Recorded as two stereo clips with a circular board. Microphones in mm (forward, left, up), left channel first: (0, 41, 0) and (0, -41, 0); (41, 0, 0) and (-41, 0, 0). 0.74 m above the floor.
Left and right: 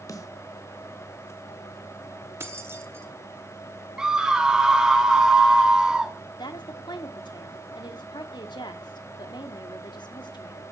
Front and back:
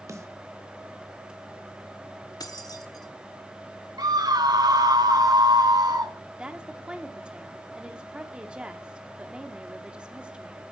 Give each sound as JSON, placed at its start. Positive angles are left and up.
{"t": 0.1, "sound": "a snare drum", "azimuth_deg": 135, "distance_m": 1.1}
{"t": 2.4, "sound": "keys jangling", "azimuth_deg": -35, "distance_m": 1.2}
{"t": 4.0, "sound": "a scream", "azimuth_deg": -170, "distance_m": 1.7}
{"t": 6.4, "sound": "a woman speaking", "azimuth_deg": 105, "distance_m": 1.2}